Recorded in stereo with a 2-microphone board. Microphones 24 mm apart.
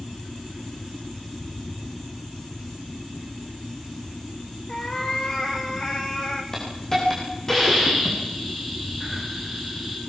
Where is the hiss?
20° left (ahead or behind), 8 m.